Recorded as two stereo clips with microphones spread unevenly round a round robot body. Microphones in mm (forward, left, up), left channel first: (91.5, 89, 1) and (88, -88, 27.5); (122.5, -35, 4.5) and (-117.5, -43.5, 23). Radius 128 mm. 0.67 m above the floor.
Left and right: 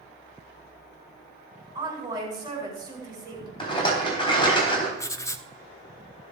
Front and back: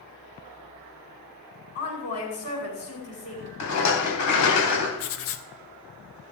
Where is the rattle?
25° left, 3.5 m.